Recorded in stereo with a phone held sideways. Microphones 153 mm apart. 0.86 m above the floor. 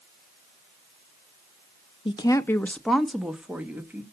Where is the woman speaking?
35° left (ahead or behind), 0.6 m; by 4.0 s 15° right (ahead or behind), 1.6 m.